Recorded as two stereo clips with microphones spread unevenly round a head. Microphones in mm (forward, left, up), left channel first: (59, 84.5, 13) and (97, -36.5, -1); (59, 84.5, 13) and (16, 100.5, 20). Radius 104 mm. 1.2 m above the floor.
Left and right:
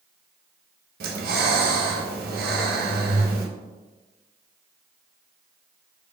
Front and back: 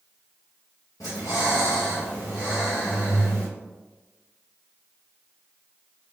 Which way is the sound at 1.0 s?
85° right.